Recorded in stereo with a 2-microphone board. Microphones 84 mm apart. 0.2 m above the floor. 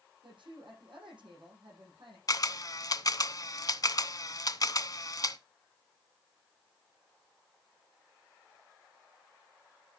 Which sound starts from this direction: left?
A camera shutter, at 2.3 s.